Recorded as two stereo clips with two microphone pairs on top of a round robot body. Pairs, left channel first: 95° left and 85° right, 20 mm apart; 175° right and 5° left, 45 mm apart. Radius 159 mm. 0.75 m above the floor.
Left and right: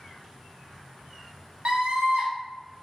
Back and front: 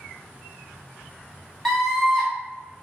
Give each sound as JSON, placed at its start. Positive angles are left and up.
{"t": 1.6, "sound": "a scream", "azimuth_deg": -80, "distance_m": 2.0}